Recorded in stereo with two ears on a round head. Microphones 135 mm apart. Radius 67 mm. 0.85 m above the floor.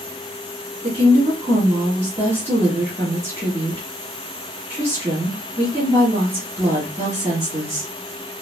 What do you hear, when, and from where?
0.8 s a woman speaking: 20° right (ahead or behind), 1.1 m